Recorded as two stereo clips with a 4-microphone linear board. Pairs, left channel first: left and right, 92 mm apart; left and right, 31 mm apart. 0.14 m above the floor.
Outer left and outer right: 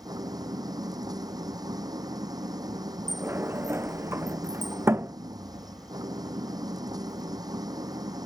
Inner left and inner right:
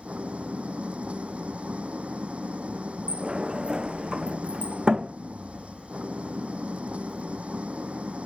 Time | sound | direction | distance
0.0 | an engine running | 45° right (ahead or behind) | ?
3.1 | a sliding door | 25° right (ahead or behind) | ?